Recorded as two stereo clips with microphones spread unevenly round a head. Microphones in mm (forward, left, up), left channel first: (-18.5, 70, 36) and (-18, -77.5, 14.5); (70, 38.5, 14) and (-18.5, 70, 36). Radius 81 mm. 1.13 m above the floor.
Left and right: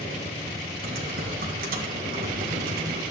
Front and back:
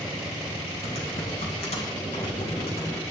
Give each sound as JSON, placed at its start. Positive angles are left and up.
{"t": 0.8, "sound": "typing on a keyboard", "azimuth_deg": -60, "distance_m": 2.0}